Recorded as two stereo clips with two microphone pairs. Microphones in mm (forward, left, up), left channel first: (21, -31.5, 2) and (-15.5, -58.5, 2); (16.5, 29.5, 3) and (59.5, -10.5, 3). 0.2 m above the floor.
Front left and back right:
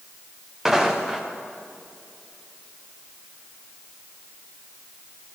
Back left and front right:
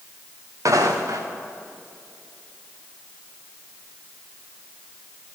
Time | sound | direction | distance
0.7 | footsteps | 65° right | 2.0 m